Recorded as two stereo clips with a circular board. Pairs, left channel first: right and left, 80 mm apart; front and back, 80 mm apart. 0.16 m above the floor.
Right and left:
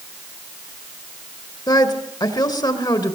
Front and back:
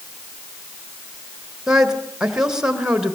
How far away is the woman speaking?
About 3 m.